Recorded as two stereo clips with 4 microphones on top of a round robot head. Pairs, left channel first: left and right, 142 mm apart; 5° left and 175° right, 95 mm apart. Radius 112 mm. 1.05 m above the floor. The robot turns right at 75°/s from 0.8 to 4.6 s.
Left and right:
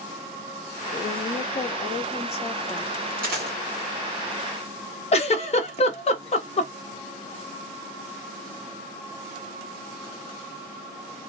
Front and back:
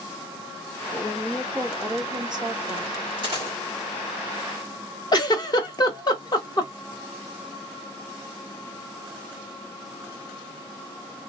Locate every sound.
0.9 s a woman speaking: 55° left, 0.9 m; by 2.9 s 155° right, 0.9 m
3.2 s a dropped coin: 125° right, 1.4 m; by 3.6 s 95° right, 1.4 m
5.1 s a giggle: 50° left, 0.9 m